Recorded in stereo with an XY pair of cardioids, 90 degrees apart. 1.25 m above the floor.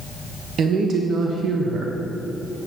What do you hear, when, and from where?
0.6 s a woman speaking: 65° right, 1.3 m